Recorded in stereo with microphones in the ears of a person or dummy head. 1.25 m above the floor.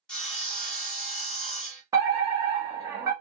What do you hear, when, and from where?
0.1 s sawing: 10° left (ahead or behind), 0.9 m
1.9 s a fire alarm: 15° right (ahead or behind), 0.8 m